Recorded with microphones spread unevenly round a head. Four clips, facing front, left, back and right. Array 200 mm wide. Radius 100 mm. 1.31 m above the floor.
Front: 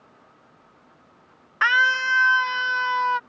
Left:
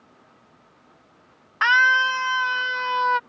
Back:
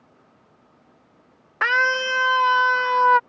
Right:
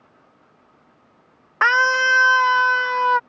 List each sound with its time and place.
1.6 s a scream: 125° right; by 3.2 s 160° right